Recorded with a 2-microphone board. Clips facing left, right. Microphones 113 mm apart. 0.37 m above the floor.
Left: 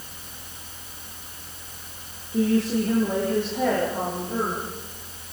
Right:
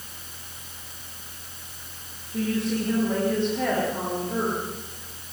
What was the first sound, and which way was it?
A woman speaking, 20° left (ahead or behind).